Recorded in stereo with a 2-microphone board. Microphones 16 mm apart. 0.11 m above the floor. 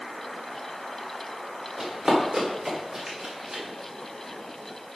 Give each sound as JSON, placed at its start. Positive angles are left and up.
{"t": 1.8, "sound": "running footsteps", "side_deg": -15, "distance_m": 4.0}